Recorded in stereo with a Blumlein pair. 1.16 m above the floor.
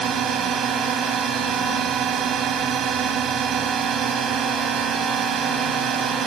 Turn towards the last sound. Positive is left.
turn(degrees=-25)